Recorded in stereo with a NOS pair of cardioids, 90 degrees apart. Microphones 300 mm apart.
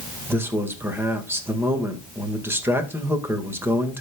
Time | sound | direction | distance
0.3 | a man speaking | 5° right | 1.7 m